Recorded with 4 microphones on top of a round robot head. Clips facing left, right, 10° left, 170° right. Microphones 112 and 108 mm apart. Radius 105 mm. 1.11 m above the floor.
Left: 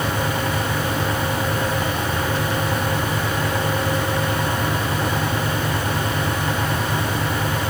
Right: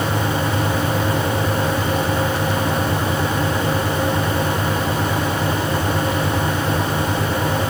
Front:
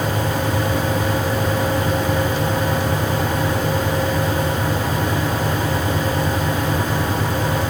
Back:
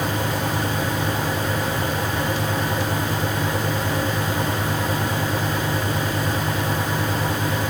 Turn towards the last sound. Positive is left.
No sound to turn to.